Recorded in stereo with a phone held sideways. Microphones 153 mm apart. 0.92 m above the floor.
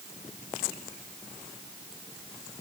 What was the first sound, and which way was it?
Only background noise.